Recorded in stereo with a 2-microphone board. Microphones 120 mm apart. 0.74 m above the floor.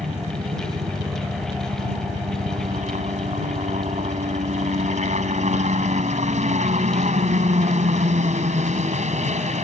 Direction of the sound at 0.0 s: 75° right (ahead or behind).